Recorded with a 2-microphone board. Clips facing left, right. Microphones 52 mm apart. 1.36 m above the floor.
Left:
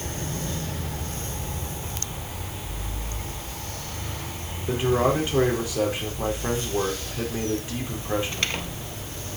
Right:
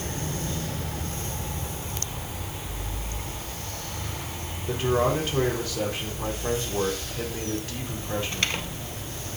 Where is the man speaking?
15° left (ahead or behind), 4.5 m.